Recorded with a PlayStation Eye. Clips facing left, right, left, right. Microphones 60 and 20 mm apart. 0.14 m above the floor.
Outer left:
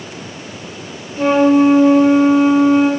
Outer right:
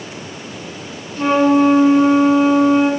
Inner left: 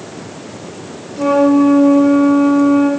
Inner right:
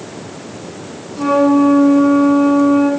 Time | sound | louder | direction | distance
1.2 | a flute | outer left 2 dB, inner left 1 dB | 20° left (ahead or behind) | 2.5 m